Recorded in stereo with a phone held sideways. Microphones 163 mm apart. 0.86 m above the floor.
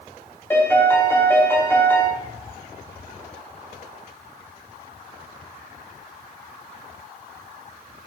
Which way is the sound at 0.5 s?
15° left (ahead or behind).